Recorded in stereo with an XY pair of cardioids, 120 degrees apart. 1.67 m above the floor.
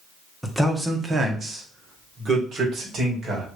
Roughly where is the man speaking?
Ahead.